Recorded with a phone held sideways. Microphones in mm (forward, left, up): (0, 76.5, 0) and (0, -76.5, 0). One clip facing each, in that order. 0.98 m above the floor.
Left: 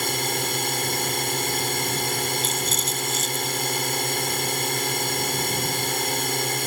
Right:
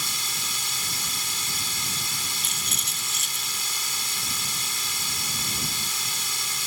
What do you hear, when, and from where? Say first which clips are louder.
0.0 s a drone: left 12 dB; 60° left (ahead or behind)
2.4 s a rattle: left 11 dB; 65° right (ahead or behind)